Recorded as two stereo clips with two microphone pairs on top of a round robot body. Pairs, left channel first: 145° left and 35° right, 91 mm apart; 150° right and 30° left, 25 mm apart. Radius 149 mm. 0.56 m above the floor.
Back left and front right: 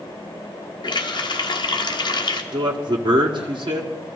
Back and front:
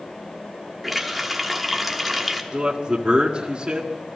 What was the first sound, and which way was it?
A running tap, 120° left.